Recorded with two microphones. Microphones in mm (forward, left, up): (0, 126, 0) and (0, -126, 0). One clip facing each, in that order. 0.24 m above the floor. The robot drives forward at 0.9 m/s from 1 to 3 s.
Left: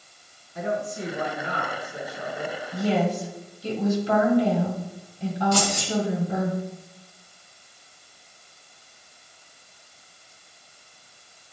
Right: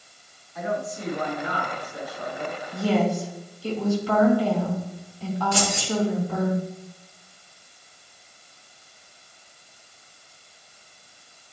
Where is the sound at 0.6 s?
30° left (ahead or behind), 2 m; by 2.6 s 20° left (ahead or behind), 3.5 m.